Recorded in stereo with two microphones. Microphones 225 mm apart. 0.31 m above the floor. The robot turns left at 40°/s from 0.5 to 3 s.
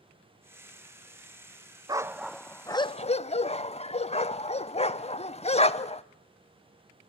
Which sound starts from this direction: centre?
A dog barking, at 1.9 s.